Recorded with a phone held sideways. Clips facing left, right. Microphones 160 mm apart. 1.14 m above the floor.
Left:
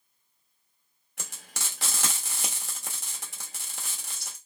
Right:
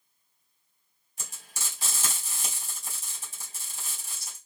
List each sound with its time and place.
1.2 s frying: 65° left (ahead or behind), 0.9 m